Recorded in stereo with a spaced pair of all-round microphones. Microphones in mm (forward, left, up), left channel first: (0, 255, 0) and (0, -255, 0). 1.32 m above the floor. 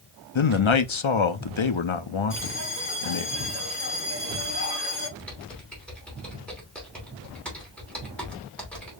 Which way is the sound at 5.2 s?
Centre (ahead or behind).